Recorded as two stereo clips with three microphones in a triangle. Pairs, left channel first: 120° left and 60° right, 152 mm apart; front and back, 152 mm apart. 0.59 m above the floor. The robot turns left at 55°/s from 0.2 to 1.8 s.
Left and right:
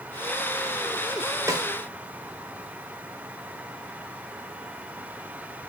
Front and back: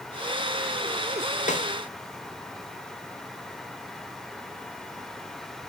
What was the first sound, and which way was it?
A snare drum, 5° left.